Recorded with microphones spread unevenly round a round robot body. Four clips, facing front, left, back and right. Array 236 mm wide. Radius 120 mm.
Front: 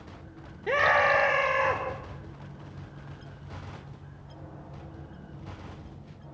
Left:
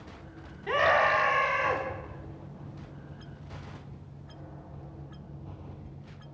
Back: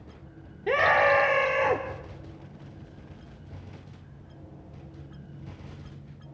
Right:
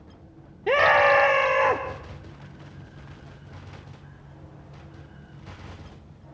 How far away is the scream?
About 1.6 m.